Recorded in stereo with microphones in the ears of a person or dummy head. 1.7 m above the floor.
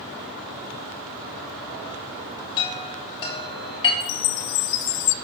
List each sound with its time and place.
2.6 s a chime: 25° left (ahead or behind), 3.5 m
4.0 s a chime: 55° left (ahead or behind), 0.6 m